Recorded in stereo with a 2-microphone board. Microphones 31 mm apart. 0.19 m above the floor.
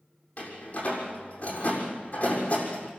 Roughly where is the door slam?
Left.